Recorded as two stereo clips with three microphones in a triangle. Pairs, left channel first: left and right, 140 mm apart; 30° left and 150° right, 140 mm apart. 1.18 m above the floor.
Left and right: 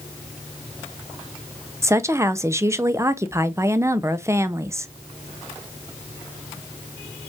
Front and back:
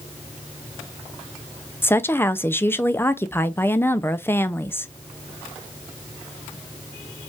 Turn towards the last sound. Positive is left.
turn(degrees=-35)